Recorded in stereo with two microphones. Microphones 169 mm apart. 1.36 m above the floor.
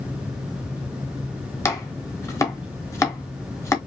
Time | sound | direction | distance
1.6 | chopping | 20° left (ahead or behind) | 1.1 m